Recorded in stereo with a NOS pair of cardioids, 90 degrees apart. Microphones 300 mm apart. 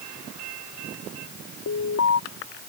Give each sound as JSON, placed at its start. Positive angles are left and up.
{"t": 1.7, "sound": "an alarm", "azimuth_deg": 55}